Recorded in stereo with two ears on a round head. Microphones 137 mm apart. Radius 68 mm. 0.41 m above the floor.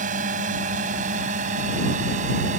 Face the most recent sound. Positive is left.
turn(degrees=-50)  # may be behind; listen again after turning